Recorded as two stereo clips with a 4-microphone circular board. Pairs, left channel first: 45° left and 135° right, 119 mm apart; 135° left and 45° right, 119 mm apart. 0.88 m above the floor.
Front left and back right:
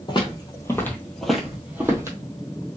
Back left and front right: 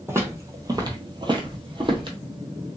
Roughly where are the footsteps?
Ahead.